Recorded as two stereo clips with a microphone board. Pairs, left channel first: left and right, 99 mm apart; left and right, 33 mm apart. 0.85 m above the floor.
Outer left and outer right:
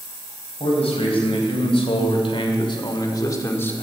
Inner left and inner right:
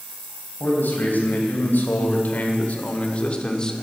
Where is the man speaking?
80° left, 4 m; by 3.8 s 15° left (ahead or behind), 1.6 m.